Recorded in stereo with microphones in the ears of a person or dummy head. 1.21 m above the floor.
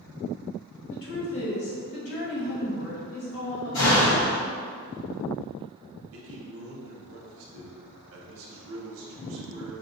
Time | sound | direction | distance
0.9 | a woman speaking | 55° left (ahead or behind) | 1.0 m
3.7 | a door slam | 80° left | 1.2 m
6.1 | a man speaking | 55° right (ahead or behind) | 0.8 m